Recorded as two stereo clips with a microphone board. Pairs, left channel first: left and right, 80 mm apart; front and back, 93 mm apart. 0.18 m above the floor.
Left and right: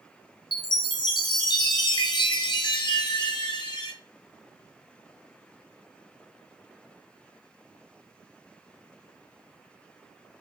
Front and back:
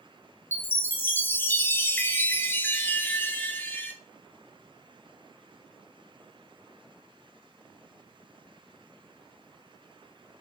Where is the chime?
65° left, 0.6 m.